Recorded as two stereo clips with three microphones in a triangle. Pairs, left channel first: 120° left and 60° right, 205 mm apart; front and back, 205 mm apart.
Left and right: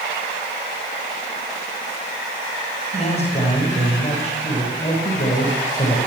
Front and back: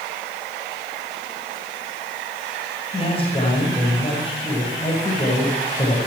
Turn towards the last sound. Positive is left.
turn(degrees=65)